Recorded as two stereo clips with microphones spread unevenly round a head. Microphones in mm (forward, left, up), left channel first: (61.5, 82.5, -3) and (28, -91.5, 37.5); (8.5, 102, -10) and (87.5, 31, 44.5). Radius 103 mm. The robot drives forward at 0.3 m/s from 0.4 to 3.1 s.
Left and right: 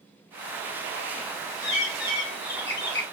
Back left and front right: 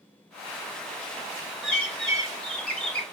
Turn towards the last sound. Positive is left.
turn(degrees=60)